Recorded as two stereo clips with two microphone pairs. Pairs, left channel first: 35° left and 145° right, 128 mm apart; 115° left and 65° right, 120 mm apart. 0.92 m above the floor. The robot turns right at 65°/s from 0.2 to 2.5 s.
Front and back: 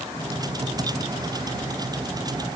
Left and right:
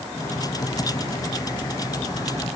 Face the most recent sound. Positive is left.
No sound to turn to.